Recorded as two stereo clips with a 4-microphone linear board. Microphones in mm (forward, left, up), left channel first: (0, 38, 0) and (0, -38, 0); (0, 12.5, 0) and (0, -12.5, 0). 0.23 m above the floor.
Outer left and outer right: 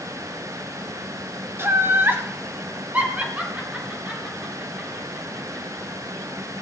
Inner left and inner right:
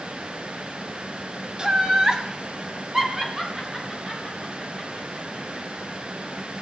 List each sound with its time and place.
1.6 s laughter: 35° right (ahead or behind), 1.7 m; by 5.6 s 5° right (ahead or behind), 6.5 m